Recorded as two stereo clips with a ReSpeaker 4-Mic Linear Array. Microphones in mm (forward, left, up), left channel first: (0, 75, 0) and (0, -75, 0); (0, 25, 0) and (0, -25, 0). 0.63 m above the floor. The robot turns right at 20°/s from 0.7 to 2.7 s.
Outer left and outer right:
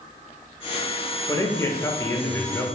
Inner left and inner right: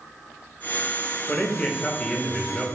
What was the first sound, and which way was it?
A man speaking, 20° left (ahead or behind).